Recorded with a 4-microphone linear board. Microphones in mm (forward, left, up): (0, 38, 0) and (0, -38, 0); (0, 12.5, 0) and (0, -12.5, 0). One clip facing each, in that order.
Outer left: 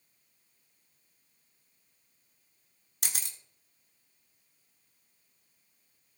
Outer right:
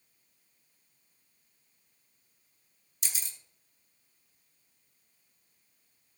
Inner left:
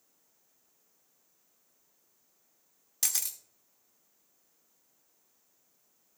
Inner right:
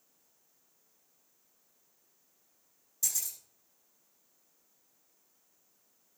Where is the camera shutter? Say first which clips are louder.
Outer left 2 dB, inner left 2 dB; 70° left (ahead or behind), 1.3 m.